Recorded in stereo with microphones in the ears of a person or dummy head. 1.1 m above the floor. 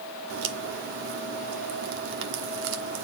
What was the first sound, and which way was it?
A crack, 65° right (ahead or behind).